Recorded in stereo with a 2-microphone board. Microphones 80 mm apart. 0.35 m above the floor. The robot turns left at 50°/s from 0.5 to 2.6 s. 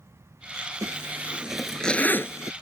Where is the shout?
No shout in this recording.